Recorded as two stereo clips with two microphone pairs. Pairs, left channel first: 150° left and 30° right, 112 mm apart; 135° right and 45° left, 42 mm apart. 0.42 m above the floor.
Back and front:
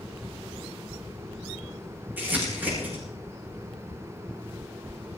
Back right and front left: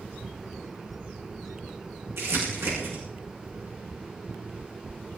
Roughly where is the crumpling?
Ahead left.